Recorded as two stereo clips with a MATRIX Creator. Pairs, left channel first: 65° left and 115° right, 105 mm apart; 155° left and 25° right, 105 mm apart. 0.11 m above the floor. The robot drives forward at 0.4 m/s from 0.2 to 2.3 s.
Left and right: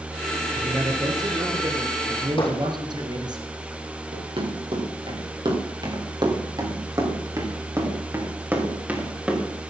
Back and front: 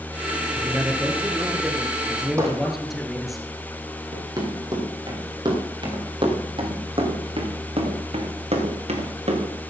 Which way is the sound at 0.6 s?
80° right.